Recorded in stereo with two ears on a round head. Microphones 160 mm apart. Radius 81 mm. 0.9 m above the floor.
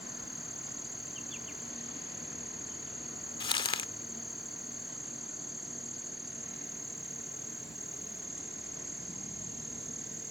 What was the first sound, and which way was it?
An insect, centre (ahead or behind).